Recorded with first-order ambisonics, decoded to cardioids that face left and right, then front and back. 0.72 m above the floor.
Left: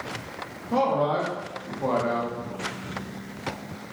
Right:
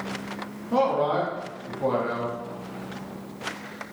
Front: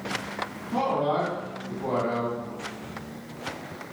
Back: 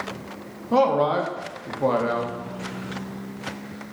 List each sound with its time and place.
0.7 s a man speaking: straight behind, 0.7 m